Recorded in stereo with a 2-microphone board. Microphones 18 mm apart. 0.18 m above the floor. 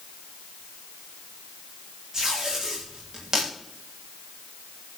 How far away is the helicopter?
I don't hear a helicopter.